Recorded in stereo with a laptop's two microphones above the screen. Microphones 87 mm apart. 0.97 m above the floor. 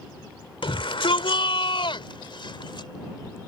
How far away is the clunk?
I don't hear a clunk.